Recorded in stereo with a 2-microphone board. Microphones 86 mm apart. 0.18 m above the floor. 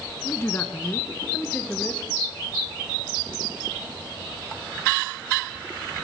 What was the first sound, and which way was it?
A man speaking, 30° left (ahead or behind).